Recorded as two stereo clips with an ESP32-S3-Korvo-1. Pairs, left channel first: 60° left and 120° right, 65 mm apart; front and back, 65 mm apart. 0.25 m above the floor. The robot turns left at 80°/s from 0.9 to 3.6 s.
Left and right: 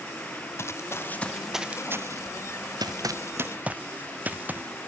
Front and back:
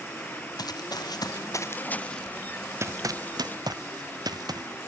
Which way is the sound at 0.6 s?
10° left.